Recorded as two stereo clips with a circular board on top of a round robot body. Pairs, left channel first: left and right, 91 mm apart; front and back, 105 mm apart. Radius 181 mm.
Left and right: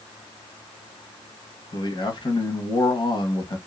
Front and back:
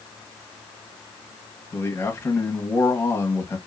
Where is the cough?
No cough in this recording.